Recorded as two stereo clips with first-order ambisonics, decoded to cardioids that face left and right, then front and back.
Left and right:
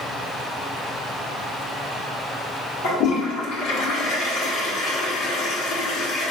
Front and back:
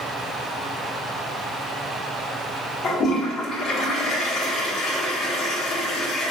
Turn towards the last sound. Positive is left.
turn(degrees=55)